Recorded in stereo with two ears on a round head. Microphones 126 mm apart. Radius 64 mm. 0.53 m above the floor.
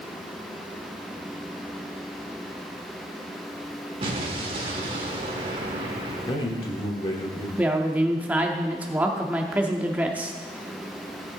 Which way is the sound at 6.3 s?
35° left (ahead or behind).